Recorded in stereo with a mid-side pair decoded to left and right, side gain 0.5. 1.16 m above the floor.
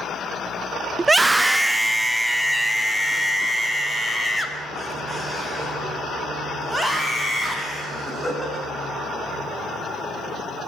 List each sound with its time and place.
1.0 s a scream: 20° right, 1.2 m; by 8.6 s 10° left, 13 m